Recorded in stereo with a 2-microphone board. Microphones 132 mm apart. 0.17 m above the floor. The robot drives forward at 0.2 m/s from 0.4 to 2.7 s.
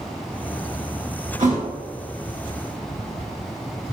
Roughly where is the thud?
Right.